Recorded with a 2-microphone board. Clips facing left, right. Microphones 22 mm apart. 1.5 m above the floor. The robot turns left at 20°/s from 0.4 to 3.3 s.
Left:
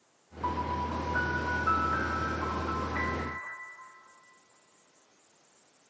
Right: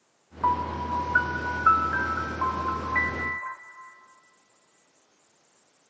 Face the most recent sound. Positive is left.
turn(degrees=-90)